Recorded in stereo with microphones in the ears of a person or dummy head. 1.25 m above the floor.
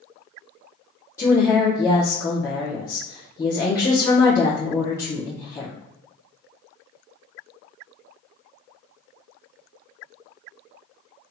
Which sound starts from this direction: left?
A woman speaking, at 1.2 s.